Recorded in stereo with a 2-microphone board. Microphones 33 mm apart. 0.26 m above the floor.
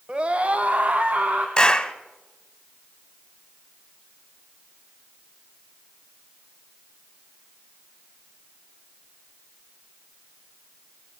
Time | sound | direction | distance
0.1 | a scream | 35° right (ahead or behind) | 1.2 m
1.6 | a clap | 20° left (ahead or behind) | 1.4 m